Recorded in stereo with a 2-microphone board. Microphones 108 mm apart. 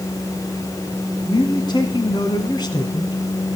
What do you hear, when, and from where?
1.3 s a man speaking: 40° left (ahead or behind), 2.0 m